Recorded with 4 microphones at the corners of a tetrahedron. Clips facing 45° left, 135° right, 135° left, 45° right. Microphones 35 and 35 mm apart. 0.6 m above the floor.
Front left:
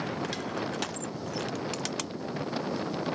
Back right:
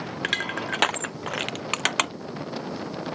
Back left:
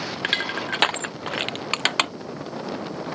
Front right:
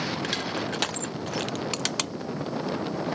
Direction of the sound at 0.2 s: 175° right.